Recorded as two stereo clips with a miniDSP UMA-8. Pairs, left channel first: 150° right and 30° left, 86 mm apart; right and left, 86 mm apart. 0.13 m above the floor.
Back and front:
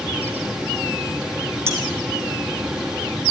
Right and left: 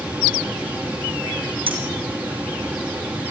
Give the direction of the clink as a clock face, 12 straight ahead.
9 o'clock.